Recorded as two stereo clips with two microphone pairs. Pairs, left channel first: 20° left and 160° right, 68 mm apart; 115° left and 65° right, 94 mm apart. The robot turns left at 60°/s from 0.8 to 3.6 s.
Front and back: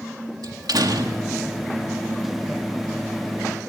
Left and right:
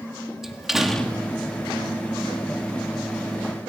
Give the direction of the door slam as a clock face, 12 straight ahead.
5 o'clock.